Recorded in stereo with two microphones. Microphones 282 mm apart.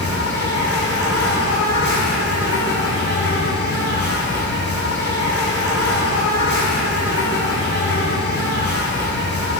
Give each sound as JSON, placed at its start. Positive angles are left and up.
{"t": 0.0, "sound": "an insect", "side_deg": 55, "distance_m": 1.0}